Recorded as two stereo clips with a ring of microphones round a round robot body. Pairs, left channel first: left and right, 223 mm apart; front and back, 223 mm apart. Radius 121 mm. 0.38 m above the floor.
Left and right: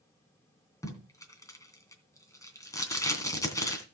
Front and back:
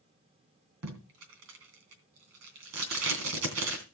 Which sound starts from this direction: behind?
Tape being pulled, at 0.8 s.